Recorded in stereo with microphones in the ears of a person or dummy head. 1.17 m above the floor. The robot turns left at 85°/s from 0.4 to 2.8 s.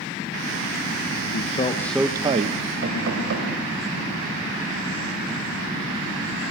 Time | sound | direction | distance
1.3 | a man speaking | 50° left | 0.7 m
2.8 | knocking | 70° right (ahead or behind) | 5 m